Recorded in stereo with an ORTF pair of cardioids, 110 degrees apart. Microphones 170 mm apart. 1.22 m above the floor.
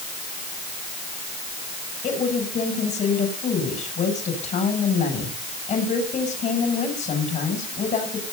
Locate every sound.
2.0 s a woman speaking: 45° left, 7.5 m